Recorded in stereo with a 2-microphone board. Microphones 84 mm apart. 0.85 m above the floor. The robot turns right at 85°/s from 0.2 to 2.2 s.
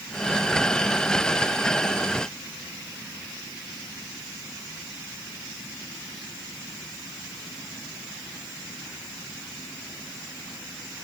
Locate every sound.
Only background noise.